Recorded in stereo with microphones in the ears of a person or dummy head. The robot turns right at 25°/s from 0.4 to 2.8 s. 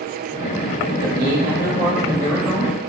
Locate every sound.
1.0 s a man speaking: 60° right, 1.1 m; by 2.7 s 15° right, 1.1 m